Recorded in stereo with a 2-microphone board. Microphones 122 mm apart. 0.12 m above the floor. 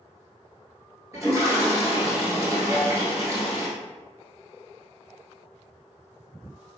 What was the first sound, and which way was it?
A toilet flushing, 25° right (ahead or behind).